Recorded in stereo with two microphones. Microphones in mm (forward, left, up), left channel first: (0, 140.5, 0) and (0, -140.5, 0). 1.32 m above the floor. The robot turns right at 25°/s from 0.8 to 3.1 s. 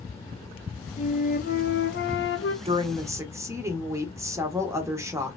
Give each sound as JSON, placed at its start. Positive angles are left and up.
{"t": 1.0, "sound": "a flute", "azimuth_deg": 30, "distance_m": 0.5}
{"t": 2.6, "sound": "a woman speaking", "side_deg": -20, "distance_m": 1.0}